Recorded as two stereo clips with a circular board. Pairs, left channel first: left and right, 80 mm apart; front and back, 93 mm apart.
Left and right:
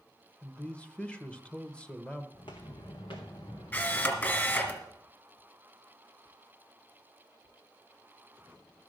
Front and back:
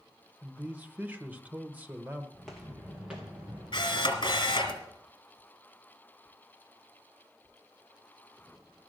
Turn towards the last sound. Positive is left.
turn(degrees=25)